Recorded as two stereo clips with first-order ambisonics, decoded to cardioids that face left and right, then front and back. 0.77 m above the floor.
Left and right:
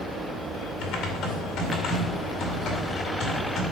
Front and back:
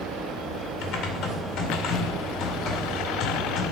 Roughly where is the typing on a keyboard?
Ahead left.